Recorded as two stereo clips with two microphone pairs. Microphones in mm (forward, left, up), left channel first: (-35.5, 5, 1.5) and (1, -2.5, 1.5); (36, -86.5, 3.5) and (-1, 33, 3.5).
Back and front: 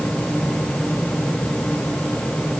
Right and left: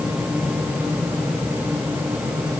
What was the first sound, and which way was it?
Only background noise.